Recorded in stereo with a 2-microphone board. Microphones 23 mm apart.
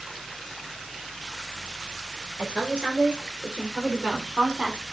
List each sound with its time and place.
2.4 s a woman speaking: 40° right (ahead or behind), 4 m